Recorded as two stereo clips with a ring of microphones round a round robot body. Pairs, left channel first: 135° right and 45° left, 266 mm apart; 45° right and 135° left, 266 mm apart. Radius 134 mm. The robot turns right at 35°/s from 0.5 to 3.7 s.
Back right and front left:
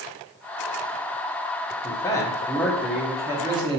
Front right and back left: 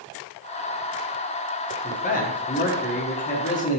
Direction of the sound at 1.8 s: 75° right.